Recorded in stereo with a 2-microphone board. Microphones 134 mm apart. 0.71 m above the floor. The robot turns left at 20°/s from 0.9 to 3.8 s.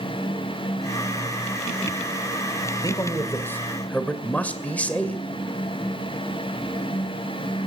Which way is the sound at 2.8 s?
30° left (ahead or behind).